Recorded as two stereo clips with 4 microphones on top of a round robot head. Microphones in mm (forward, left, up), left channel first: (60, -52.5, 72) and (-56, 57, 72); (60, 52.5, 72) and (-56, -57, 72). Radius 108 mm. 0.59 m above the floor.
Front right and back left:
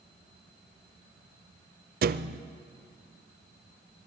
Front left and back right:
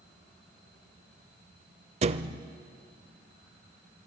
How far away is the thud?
About 0.6 m.